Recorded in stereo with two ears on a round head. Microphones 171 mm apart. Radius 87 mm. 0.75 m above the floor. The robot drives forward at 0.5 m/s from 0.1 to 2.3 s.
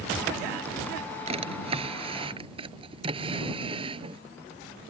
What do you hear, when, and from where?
1.3 s a drawer: 35° right (ahead or behind); by 4.2 s 30° right (ahead or behind)